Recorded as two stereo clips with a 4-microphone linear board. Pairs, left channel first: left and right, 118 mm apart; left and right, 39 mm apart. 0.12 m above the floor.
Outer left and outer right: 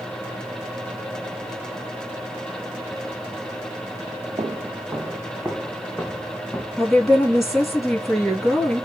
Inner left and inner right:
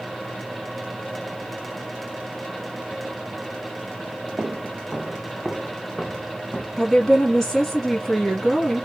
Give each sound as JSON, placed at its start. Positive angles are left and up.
{"t": 4.4, "sound": "footsteps", "side_deg": -40, "distance_m": 0.6}
{"t": 6.8, "sound": "a woman speaking", "side_deg": 0, "distance_m": 2.5}